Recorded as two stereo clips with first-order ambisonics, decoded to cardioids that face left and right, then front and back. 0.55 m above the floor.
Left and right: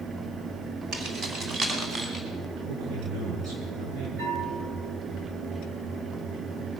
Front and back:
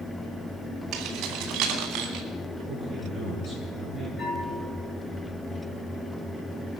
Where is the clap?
No clap in this recording.